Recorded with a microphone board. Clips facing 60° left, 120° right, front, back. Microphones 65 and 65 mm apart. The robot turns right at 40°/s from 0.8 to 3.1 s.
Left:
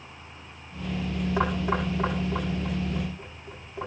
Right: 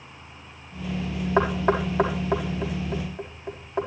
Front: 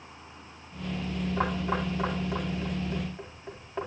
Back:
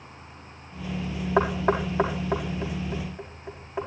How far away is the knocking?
About 5 m.